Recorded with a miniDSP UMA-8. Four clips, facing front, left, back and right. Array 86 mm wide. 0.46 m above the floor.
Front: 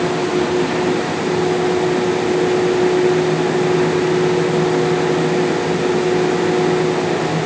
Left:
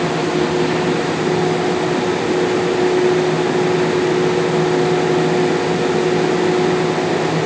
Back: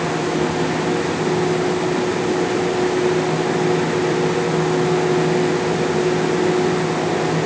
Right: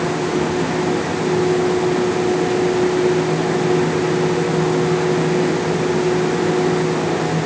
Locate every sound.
Only background noise.